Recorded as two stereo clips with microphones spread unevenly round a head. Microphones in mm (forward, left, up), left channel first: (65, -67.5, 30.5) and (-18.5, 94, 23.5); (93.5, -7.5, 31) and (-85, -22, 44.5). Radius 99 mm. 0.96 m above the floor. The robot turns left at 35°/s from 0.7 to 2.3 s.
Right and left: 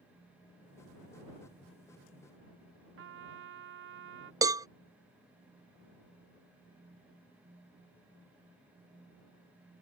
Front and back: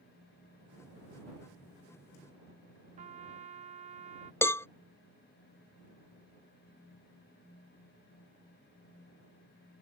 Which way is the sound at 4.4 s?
65° left.